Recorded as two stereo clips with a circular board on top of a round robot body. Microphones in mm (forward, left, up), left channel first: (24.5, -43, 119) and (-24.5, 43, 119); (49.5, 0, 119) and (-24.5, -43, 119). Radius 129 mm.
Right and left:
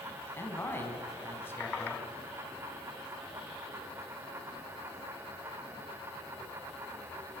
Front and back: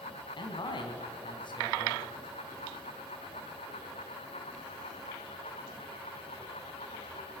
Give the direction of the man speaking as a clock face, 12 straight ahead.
12 o'clock.